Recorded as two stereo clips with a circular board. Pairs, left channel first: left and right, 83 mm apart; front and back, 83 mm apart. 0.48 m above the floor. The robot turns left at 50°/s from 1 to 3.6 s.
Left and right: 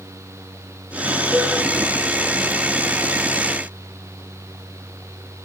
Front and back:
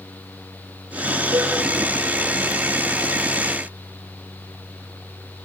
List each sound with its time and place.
1.3 s a cowbell: 160° right, 7.5 m; by 1.5 s 170° right, 7.5 m